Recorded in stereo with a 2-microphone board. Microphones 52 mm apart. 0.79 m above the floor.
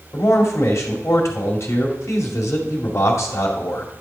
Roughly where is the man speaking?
Left.